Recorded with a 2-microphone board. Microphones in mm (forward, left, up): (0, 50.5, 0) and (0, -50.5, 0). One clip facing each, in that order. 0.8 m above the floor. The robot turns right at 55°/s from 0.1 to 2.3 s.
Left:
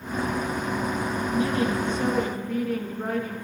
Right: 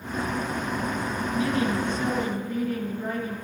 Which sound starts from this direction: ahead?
A woman speaking, at 1.3 s.